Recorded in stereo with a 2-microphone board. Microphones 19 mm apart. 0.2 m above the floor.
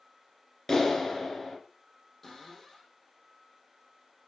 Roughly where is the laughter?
I don't hear laughter.